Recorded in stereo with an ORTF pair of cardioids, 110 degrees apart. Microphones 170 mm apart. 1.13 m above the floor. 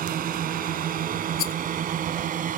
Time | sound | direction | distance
0.0 | a drone | 60° right | ?
1.4 | a rattle | 65° left | ?